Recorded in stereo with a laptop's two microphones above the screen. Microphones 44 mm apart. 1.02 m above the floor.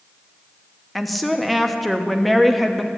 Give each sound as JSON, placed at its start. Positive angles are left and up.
{"t": 0.9, "sound": "a woman speaking", "side_deg": 0, "distance_m": 1.2}